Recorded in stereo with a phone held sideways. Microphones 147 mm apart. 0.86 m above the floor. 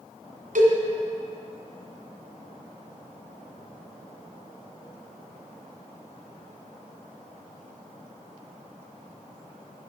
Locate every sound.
0.6 s a cowbell: 70° right (ahead or behind), 2 m